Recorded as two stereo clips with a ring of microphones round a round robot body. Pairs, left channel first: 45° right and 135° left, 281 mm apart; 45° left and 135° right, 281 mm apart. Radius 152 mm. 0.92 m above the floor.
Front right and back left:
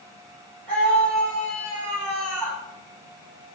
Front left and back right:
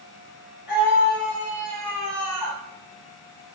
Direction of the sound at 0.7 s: 40° left.